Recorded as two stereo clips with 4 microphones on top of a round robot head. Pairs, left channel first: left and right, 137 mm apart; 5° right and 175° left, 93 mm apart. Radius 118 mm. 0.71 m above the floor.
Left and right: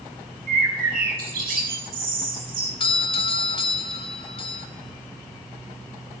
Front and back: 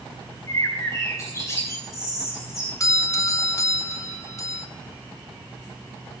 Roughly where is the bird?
Right.